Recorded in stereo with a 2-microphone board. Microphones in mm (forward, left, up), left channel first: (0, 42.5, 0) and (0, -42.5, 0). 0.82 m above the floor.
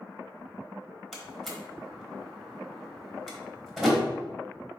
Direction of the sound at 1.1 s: Centre (ahead or behind).